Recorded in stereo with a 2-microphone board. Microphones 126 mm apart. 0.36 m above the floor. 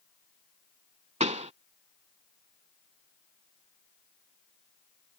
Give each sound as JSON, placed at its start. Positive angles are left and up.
{"t": 1.2, "sound": "a pop", "side_deg": -70}